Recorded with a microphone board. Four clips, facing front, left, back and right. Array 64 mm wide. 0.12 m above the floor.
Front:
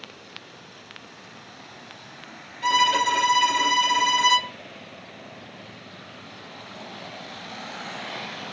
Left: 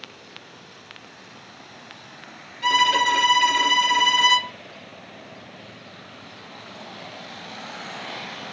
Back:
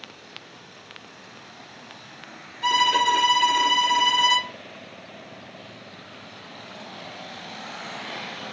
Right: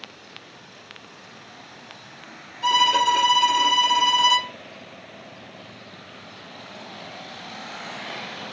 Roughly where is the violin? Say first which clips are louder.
Even, even; left.